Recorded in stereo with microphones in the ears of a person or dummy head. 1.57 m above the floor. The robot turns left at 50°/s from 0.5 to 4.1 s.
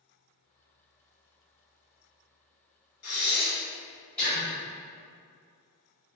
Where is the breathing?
65° left (ahead or behind), 1.6 m; by 4.5 s 10° left (ahead or behind), 1.6 m.